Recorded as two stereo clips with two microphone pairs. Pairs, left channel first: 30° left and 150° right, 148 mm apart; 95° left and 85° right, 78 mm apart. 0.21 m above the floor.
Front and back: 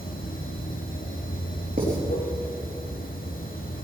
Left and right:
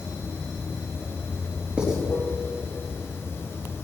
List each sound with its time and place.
0.0 s running water: 35° left, 1.9 m
1.8 s writing: 160° right, 4 m